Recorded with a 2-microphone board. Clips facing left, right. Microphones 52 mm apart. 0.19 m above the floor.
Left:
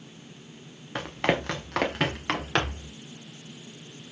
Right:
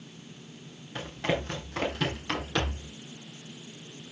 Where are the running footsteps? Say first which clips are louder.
Left 4 dB; 70° left (ahead or behind), 2.5 m; by 2.9 s 80° left, 3.5 m.